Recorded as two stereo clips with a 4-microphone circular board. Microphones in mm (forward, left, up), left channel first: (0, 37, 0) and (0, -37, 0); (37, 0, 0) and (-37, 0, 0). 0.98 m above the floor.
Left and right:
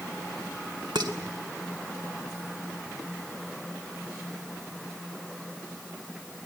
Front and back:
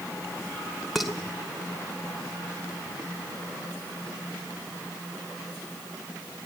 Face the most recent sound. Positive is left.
turn(degrees=-90)